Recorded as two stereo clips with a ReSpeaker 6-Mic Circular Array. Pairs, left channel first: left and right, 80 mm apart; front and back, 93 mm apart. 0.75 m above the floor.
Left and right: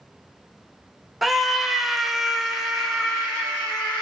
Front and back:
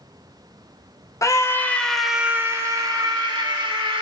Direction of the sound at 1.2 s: Straight ahead.